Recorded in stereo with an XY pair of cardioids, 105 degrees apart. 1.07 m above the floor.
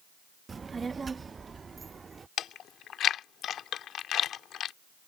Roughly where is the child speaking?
Ahead right.